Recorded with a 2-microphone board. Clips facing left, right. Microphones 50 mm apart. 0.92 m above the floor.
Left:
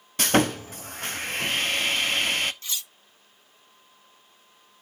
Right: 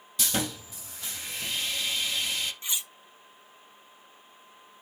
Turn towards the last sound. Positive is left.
turn(degrees=-20)  # may be behind; listen again after turning